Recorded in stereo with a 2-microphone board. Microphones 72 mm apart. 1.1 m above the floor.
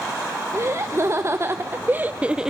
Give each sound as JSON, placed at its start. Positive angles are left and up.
{"t": 0.5, "sound": "laughter", "side_deg": -45, "distance_m": 1.2}